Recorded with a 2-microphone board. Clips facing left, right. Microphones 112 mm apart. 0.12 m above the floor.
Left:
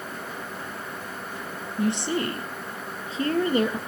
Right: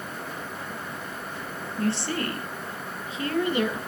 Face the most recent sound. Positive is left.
turn(degrees=40)  # may be behind; listen again after turning